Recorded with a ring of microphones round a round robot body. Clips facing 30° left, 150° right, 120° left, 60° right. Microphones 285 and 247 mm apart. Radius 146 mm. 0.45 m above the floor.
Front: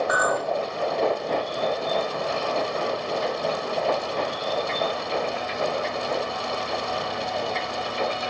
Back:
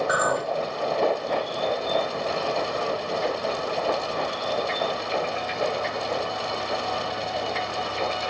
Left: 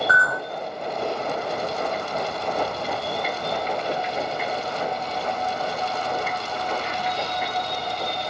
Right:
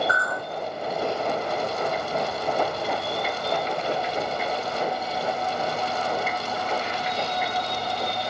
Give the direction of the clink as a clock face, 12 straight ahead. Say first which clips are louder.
Even, left 1 dB; 8 o'clock.